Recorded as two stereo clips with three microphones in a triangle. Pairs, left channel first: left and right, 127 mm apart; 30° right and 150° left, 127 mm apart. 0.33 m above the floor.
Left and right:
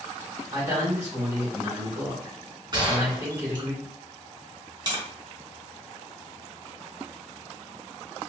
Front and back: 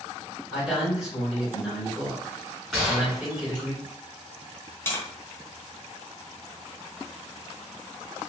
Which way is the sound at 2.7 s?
125° right.